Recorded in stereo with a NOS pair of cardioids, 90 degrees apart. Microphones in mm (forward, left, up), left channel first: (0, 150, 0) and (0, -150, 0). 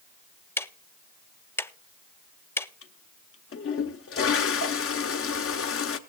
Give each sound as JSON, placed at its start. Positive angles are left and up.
{"t": 0.6, "sound": "ticking", "azimuth_deg": 10, "distance_m": 0.5}
{"t": 2.8, "sound": "a toilet flushing", "azimuth_deg": 50, "distance_m": 1.0}